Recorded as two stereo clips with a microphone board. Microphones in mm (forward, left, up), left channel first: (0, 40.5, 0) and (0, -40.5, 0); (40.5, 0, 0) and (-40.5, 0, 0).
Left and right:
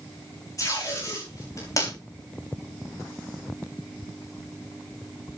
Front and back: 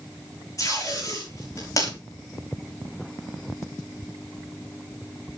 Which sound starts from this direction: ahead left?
Tape being pulled, at 0.6 s.